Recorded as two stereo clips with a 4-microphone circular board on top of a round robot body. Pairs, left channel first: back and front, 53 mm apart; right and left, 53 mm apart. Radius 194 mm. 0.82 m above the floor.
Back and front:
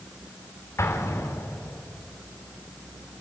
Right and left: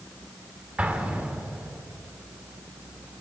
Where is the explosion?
150° left, 2 m.